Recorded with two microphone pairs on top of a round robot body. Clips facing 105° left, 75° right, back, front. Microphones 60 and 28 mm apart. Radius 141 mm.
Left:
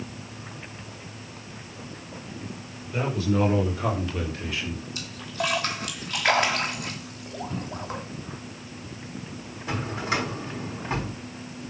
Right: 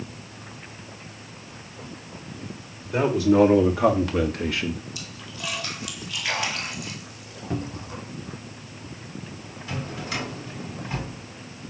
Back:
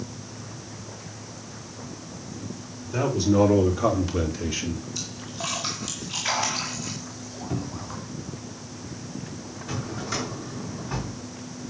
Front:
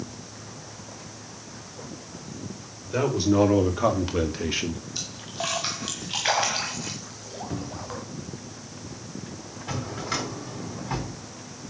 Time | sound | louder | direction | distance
2.9 | a man speaking | right 7 dB, even | 60° right | 4.5 m
5.0 | a splash | left 7 dB, front 1 dB | 55° left | 1.4 m
7.5 | a cupboard door | right 5 dB, back 2 dB | 85° right | 1.4 m
9.7 | a drawer | left 4 dB, front 1 dB | 45° left | 4 m